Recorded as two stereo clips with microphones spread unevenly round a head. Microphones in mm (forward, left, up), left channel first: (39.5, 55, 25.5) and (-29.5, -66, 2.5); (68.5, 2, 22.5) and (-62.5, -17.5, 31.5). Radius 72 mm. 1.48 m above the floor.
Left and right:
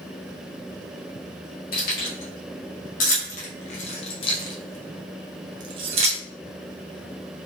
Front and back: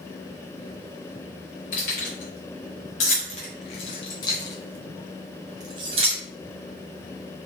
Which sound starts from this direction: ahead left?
Keys jangling, at 1.7 s.